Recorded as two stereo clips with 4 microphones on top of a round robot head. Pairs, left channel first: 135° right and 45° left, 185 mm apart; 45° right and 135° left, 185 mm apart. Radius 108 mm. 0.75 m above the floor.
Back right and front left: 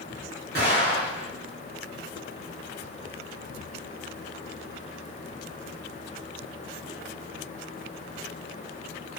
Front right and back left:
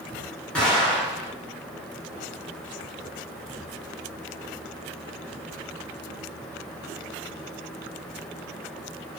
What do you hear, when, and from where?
0.6 s an explosion: 35° left, 1.8 m